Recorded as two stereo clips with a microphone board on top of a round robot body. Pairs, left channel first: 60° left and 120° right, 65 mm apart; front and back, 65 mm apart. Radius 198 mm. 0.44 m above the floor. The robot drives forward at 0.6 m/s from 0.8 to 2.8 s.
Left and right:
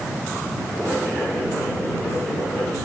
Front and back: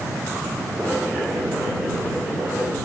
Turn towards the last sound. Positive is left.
No sound to turn to.